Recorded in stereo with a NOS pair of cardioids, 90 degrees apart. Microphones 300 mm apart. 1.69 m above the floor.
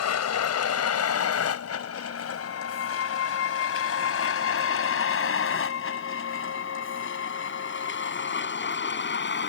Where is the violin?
55° left.